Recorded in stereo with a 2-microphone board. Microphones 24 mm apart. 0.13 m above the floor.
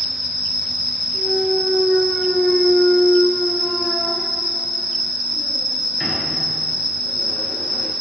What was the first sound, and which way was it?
An insect, 70° right (ahead or behind).